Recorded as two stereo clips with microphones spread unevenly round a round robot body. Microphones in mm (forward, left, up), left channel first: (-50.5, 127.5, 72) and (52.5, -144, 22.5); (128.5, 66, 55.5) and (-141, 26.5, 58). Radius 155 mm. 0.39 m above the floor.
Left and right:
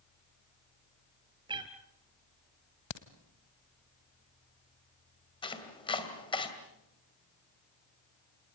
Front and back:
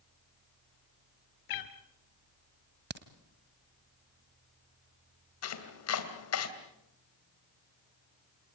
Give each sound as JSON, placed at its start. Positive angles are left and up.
{"t": 1.5, "sound": "a cat meowing", "azimuth_deg": 5, "distance_m": 1.6}
{"t": 2.9, "sound": "a crack", "azimuth_deg": 135, "distance_m": 1.4}
{"t": 5.4, "sound": "chopping", "azimuth_deg": 35, "distance_m": 2.5}